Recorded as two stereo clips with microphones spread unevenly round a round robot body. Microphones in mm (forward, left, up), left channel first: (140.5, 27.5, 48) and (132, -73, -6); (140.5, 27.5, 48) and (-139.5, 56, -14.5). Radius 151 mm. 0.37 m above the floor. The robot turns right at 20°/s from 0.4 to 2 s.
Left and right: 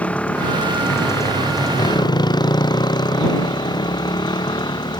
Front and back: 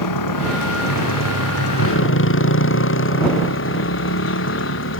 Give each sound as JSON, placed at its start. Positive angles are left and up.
{"t": 0.0, "sound": "a motorcycle", "azimuth_deg": 10}